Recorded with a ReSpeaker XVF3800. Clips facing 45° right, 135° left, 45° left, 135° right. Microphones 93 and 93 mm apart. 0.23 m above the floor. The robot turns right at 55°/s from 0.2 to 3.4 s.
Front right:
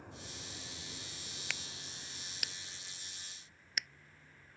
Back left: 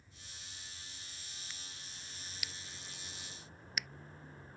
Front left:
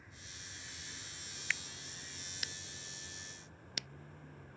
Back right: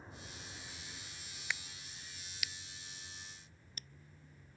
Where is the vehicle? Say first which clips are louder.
Front right 9 dB, back right 4 dB; 75° right; by 4.6 s 75° left.